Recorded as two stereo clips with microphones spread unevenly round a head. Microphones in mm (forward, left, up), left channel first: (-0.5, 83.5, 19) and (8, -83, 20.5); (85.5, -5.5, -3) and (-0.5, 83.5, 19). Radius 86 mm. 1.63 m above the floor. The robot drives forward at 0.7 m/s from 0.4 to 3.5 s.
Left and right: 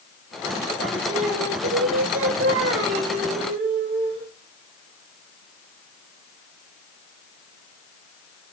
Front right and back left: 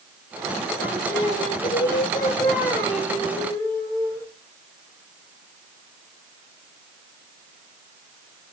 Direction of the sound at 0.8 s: 65° right.